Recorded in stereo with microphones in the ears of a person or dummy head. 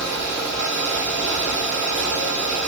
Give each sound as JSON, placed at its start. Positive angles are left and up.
{"t": 0.0, "sound": "a fan", "side_deg": -10, "distance_m": 2.5}